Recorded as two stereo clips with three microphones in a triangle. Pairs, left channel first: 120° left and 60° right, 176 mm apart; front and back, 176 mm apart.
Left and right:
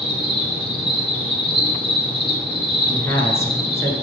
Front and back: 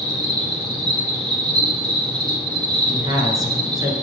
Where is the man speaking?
165° left, 1.2 m.